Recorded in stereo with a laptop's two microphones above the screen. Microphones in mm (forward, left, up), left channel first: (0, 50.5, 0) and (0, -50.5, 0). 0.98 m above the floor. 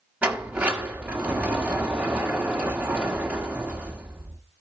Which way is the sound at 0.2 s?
15° right (ahead or behind).